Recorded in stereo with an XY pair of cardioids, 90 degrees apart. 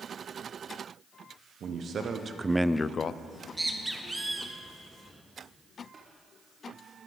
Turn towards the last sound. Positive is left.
turn(degrees=-40)